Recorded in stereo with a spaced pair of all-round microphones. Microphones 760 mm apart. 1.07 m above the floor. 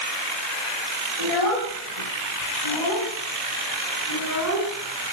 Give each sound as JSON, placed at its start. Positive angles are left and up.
{"t": 1.2, "sound": "a child speaking", "side_deg": 50, "distance_m": 5.5}